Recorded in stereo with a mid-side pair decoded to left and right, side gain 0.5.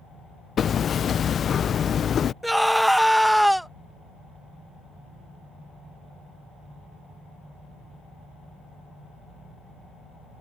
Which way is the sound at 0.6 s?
50° left.